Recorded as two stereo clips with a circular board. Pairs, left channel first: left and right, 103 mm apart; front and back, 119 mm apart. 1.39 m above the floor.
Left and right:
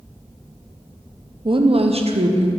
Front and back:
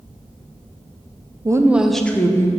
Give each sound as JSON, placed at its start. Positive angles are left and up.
{"t": 1.4, "sound": "a woman speaking", "azimuth_deg": -120, "distance_m": 0.6}